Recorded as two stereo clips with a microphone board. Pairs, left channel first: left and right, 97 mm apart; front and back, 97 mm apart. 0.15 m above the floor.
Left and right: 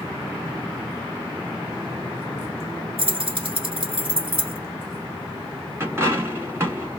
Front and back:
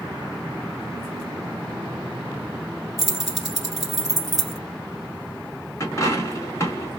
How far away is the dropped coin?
About 0.9 m.